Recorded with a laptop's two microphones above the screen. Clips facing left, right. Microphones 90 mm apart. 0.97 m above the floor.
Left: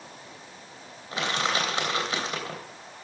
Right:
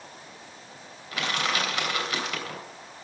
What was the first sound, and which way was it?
Crushing, 30° left (ahead or behind).